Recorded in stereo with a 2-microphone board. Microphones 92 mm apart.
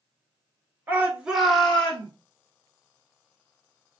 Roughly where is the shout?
Right.